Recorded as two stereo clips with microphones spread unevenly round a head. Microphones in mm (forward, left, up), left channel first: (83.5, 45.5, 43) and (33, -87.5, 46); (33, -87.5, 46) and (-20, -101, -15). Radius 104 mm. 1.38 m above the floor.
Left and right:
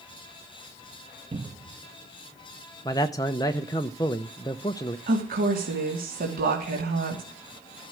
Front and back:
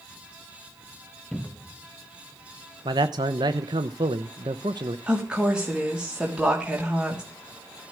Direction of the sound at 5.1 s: 90° right.